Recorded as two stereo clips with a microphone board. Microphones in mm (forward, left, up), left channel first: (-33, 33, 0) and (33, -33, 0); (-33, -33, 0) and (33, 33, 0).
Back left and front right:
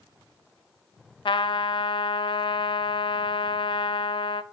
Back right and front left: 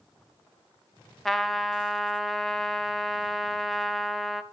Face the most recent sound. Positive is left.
turn(degrees=140)